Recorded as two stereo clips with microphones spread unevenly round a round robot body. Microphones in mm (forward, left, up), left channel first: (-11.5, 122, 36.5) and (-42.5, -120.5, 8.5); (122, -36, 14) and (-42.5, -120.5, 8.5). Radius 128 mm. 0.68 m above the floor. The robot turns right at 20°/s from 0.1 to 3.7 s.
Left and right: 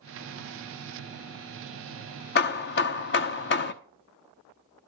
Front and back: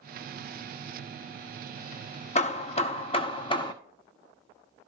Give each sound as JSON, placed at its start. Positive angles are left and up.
{"t": 2.4, "sound": "hammering", "azimuth_deg": 55, "distance_m": 1.0}